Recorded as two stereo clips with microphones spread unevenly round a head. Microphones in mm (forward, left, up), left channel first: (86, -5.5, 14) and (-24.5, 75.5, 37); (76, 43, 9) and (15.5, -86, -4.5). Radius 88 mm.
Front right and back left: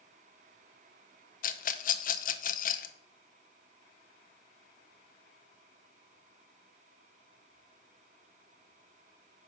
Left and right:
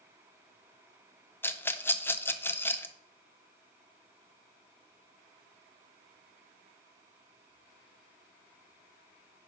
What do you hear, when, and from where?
1.4 s a rattle: 15° right, 0.5 m